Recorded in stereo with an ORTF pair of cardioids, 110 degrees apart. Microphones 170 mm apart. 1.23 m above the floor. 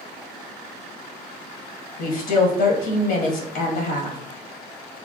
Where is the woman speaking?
65° left, 1.3 m.